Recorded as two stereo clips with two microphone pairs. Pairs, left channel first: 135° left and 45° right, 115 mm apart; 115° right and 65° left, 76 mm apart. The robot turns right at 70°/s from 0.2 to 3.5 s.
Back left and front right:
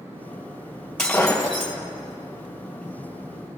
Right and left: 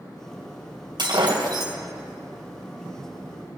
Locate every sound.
1.0 s breaking glass: 50° left, 2.5 m; by 1.7 s 105° left, 2.5 m